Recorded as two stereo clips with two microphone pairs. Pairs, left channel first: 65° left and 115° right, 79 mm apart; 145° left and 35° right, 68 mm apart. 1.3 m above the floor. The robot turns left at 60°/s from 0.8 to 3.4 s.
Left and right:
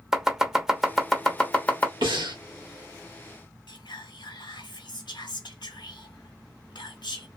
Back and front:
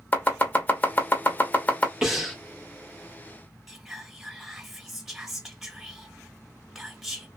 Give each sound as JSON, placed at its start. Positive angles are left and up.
{"t": 0.1, "sound": "chopping", "azimuth_deg": 170, "distance_m": 0.7}
{"t": 2.0, "sound": "breathing", "azimuth_deg": -115, "distance_m": 1.4}
{"t": 3.7, "sound": "whispering", "azimuth_deg": 55, "distance_m": 1.1}